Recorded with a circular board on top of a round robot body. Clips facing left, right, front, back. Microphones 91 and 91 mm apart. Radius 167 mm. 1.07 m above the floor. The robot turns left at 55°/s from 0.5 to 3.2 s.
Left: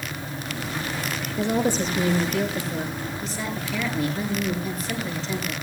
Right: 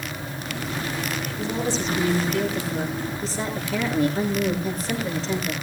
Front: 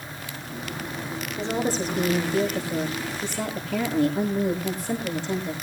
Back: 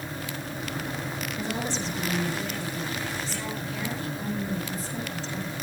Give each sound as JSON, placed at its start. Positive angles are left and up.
{"t": 1.4, "sound": "a woman speaking", "azimuth_deg": 65, "distance_m": 6.0}